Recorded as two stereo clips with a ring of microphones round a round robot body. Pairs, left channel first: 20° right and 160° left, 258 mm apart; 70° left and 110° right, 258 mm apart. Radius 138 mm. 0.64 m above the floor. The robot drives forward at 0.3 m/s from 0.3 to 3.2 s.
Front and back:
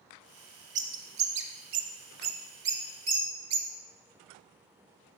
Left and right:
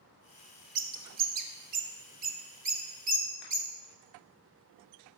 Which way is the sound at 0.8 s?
155° right.